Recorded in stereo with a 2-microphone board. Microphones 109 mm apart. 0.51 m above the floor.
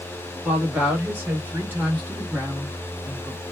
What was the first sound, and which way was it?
A woman speaking, 15° right (ahead or behind).